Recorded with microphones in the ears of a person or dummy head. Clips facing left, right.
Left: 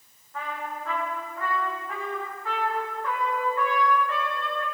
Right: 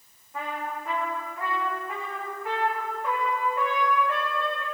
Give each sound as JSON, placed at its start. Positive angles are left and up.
{"t": 0.3, "sound": "a trumpet", "side_deg": -20, "distance_m": 3.0}